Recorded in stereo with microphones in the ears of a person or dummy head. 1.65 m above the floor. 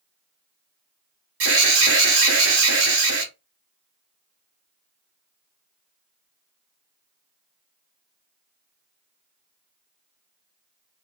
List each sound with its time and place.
1.4 s an alarm: 65° right (ahead or behind), 1.2 m